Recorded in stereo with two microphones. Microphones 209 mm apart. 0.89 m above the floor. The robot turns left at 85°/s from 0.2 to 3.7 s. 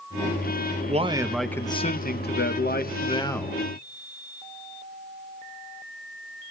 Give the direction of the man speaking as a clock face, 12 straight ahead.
5 o'clock.